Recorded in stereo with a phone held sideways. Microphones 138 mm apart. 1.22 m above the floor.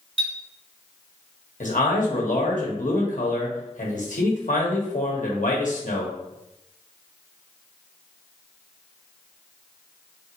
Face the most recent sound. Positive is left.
turn(degrees=75)  # may be behind; listen again after turning